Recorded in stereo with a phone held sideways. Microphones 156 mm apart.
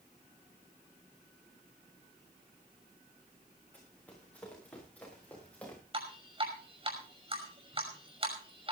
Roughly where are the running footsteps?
Centre.